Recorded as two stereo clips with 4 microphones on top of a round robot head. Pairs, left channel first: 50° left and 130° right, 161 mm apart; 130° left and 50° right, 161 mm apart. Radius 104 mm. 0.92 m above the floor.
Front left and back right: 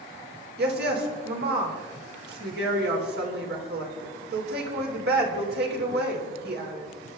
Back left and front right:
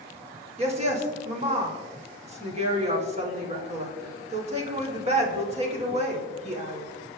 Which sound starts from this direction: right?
A woman speaking, at 0.6 s.